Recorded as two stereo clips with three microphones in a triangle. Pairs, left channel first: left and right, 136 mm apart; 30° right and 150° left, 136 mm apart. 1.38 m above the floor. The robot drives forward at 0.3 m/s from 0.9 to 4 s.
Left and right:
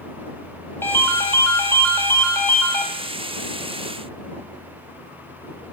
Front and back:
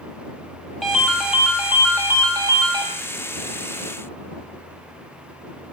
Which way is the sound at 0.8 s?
60° left.